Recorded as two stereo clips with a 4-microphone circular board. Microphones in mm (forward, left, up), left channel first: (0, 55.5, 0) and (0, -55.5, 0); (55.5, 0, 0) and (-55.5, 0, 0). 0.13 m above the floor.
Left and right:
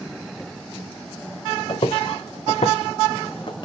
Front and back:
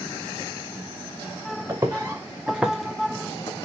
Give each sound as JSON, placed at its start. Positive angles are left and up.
{"t": 1.7, "sound": "footsteps", "azimuth_deg": 120, "distance_m": 1.1}